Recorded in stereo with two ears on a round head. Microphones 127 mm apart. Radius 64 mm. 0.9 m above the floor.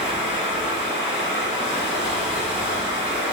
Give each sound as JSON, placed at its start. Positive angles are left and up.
{"t": 0.0, "sound": "running water", "side_deg": -5, "distance_m": 1.5}